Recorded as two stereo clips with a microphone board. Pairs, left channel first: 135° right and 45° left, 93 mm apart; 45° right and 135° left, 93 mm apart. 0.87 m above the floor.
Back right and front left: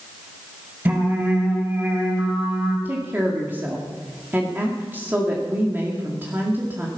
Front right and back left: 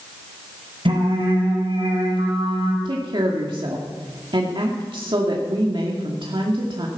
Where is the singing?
110° left, 5.5 m.